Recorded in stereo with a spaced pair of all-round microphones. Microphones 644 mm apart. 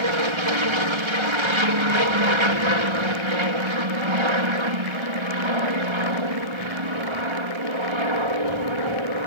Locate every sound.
0.0 s an aircraft: 45° right (ahead or behind)